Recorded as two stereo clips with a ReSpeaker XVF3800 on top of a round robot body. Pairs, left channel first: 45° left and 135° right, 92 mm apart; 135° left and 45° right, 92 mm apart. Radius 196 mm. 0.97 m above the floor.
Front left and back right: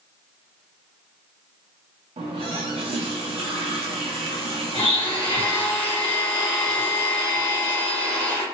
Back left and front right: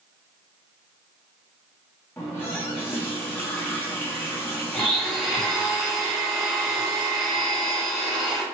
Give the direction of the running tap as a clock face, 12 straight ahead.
5 o'clock.